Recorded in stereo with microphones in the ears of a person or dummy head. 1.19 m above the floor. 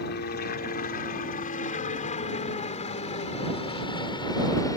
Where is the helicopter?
40° left (ahead or behind); by 4.8 s 15° left (ahead or behind).